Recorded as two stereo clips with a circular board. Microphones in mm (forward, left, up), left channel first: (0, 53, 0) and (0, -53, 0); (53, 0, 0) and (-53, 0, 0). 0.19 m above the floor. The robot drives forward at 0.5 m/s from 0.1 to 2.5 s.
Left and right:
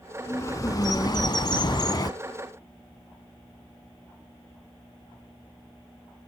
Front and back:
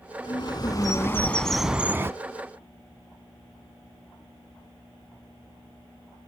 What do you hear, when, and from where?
0.2 s a bird: 30° left, 0.9 m; by 2.1 s 125° left, 0.6 m